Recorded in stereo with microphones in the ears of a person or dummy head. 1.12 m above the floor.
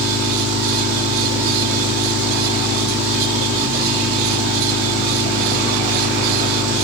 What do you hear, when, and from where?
0.0 s an engine running: 70° right (ahead or behind), 3 m